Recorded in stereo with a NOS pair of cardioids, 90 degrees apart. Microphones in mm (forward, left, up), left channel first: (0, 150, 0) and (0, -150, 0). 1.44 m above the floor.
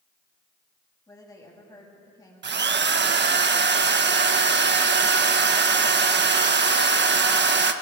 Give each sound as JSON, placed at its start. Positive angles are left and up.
{"t": 1.1, "sound": "a woman speaking", "azimuth_deg": 10, "distance_m": 8.0}
{"t": 2.4, "sound": "a drill", "azimuth_deg": -35, "distance_m": 1.5}